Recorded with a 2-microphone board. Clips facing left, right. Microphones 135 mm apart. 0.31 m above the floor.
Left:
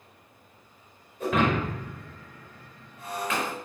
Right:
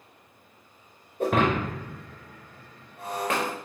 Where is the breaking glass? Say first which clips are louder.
Right 1 dB; 65° right (ahead or behind), 3.5 m.